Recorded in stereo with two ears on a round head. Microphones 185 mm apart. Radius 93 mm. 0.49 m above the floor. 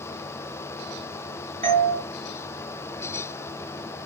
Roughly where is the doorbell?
Right.